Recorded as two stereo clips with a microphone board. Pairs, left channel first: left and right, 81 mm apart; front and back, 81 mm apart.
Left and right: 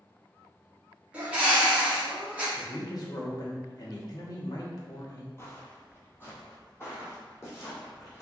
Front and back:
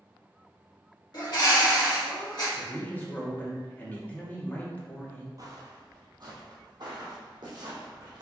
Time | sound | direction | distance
1.1 | a bird | 20° right | 1.7 m
2.6 | a man speaking | 65° left | 1.2 m
5.4 | footsteps | 145° left | 1.2 m